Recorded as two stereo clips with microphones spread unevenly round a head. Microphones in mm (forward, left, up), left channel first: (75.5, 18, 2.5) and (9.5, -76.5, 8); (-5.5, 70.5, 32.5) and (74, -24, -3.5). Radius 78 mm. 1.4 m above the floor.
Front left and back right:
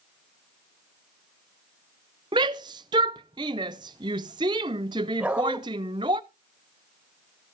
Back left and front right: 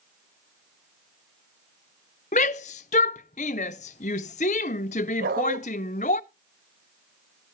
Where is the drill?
No drill in this recording.